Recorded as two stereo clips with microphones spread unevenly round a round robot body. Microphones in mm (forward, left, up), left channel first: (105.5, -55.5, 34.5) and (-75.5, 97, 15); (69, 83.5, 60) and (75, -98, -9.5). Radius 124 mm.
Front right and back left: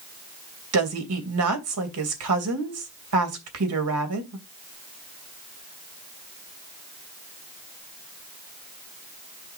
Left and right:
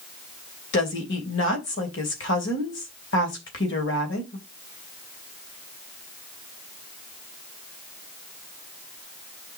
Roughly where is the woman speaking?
Behind left.